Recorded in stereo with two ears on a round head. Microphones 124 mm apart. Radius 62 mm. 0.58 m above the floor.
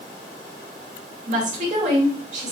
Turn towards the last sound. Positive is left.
turn(degrees=-55)  # may be behind; listen again after turning